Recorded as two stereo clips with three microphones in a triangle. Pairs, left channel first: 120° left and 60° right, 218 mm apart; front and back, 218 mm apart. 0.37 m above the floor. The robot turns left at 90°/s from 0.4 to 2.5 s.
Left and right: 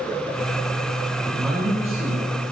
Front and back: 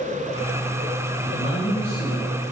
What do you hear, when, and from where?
1.2 s a man speaking: 50° left, 3.5 m; by 2.5 s 65° right, 3.5 m